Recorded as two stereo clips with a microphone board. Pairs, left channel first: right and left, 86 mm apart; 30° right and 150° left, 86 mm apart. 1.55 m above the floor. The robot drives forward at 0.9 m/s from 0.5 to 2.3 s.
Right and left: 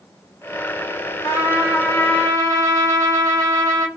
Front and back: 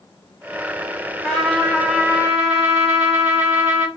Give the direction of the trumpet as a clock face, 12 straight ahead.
4 o'clock.